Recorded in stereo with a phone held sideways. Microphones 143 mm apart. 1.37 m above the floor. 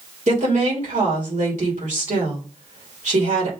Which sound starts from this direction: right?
A woman speaking, at 0.3 s.